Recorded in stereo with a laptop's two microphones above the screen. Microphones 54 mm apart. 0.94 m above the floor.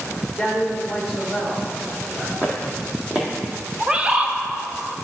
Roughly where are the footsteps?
Right.